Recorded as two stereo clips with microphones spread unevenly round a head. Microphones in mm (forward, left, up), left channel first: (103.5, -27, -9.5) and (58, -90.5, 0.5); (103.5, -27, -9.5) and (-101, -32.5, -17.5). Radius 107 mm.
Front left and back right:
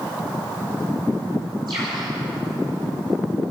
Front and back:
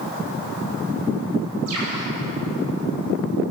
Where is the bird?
175° left, 9.5 m.